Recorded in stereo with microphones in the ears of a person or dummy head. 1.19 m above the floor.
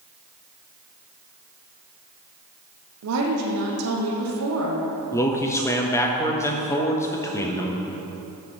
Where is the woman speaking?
85° right, 1.3 m.